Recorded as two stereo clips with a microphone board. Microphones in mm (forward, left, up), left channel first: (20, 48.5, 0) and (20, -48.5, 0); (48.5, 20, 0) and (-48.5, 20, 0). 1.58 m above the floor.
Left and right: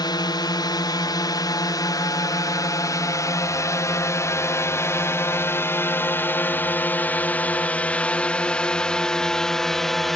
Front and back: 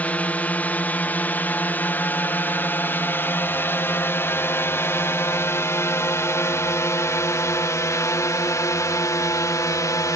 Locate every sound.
0.0 s a drone: 70° left; by 10.2 s 5° left